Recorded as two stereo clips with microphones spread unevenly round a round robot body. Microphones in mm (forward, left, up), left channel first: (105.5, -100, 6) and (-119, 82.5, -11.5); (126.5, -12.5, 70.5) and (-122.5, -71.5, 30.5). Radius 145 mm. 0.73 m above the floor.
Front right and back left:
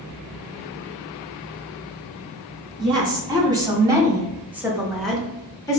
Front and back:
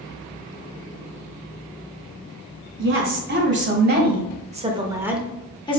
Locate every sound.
2.8 s a woman speaking: 150° right, 1.6 m; by 5.8 s 5° left, 0.7 m